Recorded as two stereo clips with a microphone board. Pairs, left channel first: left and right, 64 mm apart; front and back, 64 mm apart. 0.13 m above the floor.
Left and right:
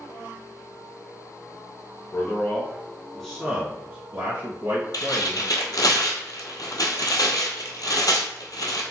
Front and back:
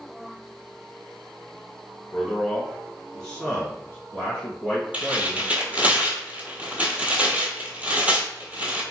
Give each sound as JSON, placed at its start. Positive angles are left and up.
{"t": 2.1, "sound": "a man speaking", "azimuth_deg": 85, "distance_m": 1.5}
{"t": 4.9, "sound": "tearing paper", "azimuth_deg": 110, "distance_m": 0.8}